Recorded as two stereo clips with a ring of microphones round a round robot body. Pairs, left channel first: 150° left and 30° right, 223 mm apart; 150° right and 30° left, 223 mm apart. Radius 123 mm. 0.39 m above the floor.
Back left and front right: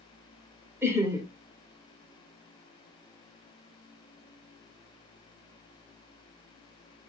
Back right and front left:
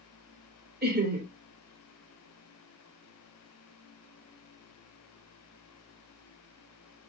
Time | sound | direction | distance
0.8 | laughter | 45° left | 1.9 m